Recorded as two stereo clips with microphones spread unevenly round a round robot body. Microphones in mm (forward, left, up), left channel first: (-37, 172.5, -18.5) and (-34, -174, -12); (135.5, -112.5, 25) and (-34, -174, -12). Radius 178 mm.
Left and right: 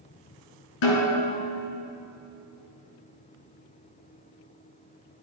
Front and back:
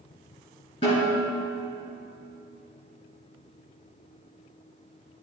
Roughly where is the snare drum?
Left.